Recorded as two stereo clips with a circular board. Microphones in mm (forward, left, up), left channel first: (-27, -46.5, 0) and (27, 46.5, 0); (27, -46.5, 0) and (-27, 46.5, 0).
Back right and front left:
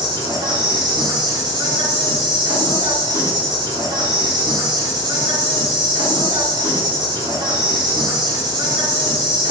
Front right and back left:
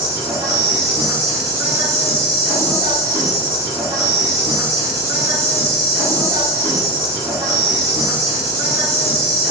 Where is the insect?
75° left, 1.5 m.